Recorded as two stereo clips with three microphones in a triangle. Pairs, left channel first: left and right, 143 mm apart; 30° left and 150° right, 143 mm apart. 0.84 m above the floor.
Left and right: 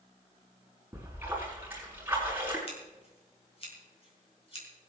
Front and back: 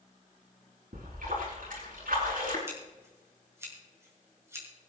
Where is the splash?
165° right, 6 m.